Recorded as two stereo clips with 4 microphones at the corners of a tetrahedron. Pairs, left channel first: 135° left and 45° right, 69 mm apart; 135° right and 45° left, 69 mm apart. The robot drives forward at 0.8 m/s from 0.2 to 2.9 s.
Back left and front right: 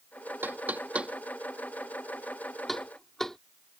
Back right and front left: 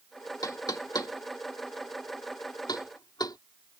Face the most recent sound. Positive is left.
turn(degrees=-140)